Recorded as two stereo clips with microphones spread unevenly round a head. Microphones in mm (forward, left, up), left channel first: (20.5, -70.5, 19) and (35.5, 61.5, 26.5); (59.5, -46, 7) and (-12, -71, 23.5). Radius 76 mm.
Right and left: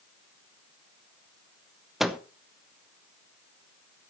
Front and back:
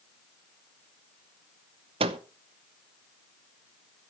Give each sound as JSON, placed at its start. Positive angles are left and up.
{"t": 2.0, "sound": "a microwave", "azimuth_deg": 175, "distance_m": 0.7}